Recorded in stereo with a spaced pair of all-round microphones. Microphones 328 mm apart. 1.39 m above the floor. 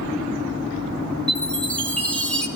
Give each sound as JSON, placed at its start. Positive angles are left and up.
{"t": 1.3, "sound": "a chime", "side_deg": 5, "distance_m": 1.8}